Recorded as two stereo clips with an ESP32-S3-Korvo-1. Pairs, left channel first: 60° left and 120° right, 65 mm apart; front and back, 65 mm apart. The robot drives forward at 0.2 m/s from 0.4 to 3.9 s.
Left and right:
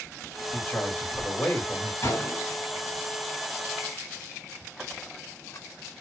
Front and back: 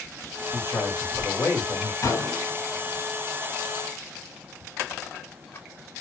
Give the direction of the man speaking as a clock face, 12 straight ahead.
11 o'clock.